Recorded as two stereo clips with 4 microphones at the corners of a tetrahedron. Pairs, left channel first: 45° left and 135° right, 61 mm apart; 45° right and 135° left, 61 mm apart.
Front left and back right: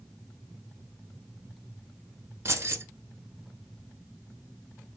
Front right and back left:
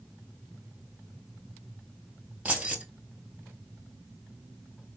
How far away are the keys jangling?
About 1.1 m.